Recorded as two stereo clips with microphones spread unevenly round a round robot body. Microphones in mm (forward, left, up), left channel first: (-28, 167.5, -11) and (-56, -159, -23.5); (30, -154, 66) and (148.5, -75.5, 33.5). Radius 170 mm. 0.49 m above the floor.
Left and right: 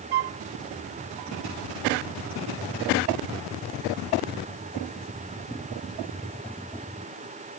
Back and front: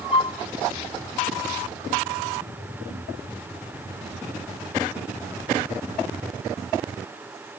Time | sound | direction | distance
0.1 | a flute | 100° right | ?